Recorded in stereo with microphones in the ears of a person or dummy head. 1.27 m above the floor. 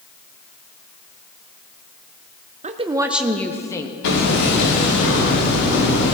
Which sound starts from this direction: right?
A woman speaking, at 2.6 s.